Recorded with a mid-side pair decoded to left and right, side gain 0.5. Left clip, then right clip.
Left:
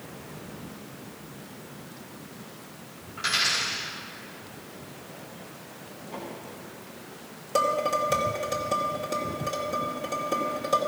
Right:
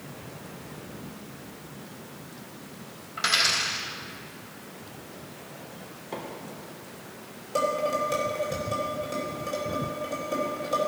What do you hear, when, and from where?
3.2 s a dropped coin: 40° right, 3.5 m
6.1 s a microwave: 60° right, 3 m
7.5 s dishes clattering: 30° left, 2.5 m